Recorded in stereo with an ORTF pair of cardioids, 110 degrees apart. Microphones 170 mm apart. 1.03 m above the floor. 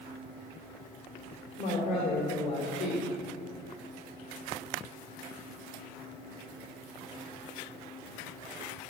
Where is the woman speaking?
45° left, 3.5 m.